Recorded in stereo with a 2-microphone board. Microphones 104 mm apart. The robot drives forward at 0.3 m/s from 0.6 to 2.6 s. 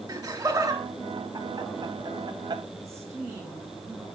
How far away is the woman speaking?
About 1.9 m.